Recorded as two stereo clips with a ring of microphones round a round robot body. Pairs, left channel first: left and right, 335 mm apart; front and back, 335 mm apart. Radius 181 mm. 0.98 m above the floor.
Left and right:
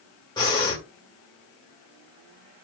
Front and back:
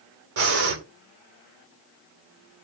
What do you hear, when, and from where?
0.4 s breathing: 170° left, 1.8 m